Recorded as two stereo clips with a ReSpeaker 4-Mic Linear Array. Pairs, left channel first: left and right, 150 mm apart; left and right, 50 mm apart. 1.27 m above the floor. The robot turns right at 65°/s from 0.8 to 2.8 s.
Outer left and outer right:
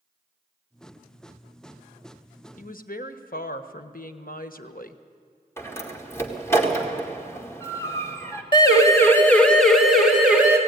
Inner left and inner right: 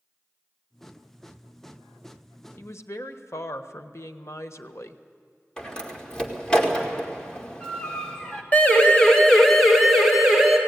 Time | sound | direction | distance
2.6 | a woman speaking | 60° left (ahead or behind) | 1.1 m
5.6 | a door slam | 15° left (ahead or behind) | 2 m
8.5 | a siren | 30° left (ahead or behind) | 2 m